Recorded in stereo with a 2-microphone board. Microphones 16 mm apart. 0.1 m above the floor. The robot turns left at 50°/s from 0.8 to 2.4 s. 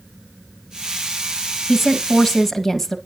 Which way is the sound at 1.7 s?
155° right.